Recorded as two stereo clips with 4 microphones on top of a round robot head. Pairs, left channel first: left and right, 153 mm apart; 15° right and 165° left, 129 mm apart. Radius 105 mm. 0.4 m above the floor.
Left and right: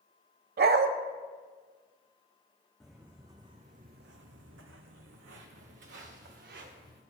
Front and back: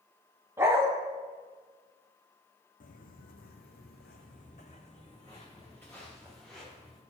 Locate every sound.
0.6 s a dog barking: 115° right, 0.7 m
2.8 s footsteps: straight ahead, 1.1 m; by 7.0 s 105° right, 2.5 m